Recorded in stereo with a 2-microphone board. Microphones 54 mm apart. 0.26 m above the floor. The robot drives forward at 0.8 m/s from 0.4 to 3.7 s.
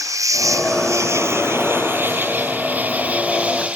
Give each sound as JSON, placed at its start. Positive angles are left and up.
{"t": 0.0, "sound": "an insect", "side_deg": -80}